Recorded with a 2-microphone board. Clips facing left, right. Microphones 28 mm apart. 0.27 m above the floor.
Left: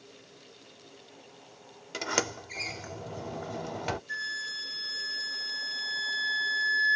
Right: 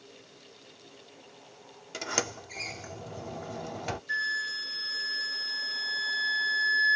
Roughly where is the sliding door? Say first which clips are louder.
Left 2 dB; centre.